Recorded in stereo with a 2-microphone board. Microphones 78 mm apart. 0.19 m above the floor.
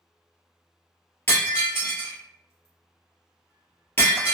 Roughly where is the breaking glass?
Left.